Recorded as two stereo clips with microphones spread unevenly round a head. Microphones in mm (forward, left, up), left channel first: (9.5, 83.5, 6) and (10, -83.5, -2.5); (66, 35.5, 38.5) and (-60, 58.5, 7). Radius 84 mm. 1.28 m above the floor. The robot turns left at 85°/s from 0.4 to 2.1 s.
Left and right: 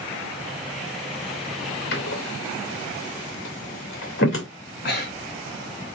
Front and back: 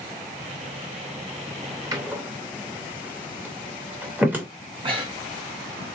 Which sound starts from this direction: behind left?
Breathing, at 4.8 s.